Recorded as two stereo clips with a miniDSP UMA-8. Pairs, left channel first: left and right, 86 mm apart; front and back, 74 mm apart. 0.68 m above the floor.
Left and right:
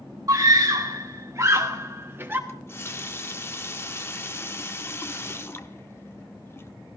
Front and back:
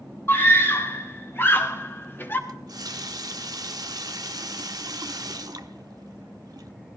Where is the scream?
50° right, 2 m; by 2.4 s 40° right, 1.4 m.